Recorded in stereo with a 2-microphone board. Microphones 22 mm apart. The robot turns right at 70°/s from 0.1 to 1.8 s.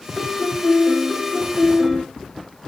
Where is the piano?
70° left, 3 m; by 2.0 s 175° right, 3 m.